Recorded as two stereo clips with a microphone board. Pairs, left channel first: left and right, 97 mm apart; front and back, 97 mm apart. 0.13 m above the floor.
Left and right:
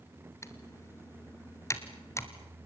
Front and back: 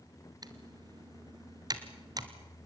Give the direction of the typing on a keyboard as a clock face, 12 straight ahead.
7 o'clock.